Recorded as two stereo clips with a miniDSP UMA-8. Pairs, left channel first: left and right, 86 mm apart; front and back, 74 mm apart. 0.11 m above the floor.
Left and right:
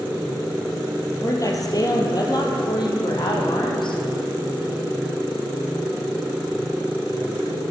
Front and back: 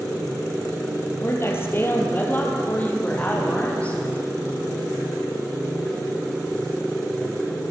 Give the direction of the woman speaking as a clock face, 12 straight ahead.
10 o'clock.